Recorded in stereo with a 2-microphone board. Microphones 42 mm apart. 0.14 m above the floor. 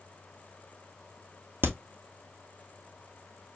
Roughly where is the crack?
Right.